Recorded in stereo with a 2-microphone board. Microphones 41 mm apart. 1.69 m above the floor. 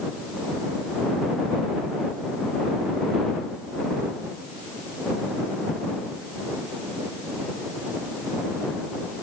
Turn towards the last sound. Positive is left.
No sound to turn to.